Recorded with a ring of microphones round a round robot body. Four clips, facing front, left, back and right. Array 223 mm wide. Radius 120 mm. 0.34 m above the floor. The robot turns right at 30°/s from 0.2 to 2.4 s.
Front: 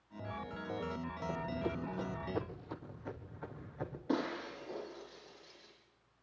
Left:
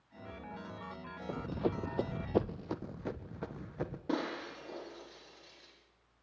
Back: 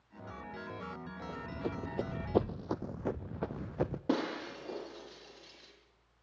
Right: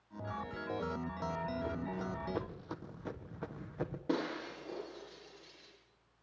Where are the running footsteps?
75° left, 0.8 m; by 4.0 s straight behind, 1.4 m.